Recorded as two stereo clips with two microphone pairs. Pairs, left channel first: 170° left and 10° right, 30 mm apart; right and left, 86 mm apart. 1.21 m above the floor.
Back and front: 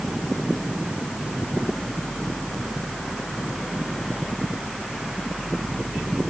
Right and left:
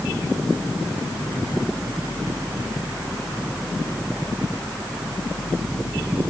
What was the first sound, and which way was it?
Only background noise.